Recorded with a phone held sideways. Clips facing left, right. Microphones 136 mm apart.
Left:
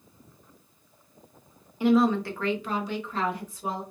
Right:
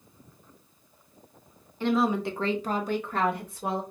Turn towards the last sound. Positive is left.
turn(degrees=-65)  # may be behind; listen again after turning